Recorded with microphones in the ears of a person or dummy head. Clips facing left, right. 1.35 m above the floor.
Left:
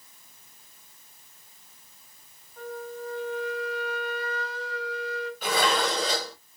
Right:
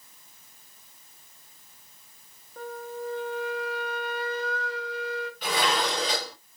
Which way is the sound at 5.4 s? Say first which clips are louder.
Left 2 dB; 5° left (ahead or behind).